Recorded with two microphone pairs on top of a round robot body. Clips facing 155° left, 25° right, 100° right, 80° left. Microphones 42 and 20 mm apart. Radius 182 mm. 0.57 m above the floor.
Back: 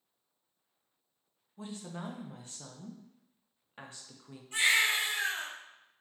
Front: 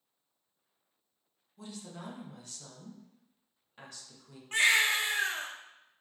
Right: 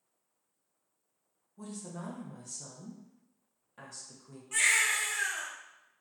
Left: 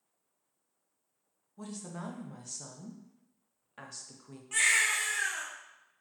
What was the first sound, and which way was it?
A woman speaking, 120° left.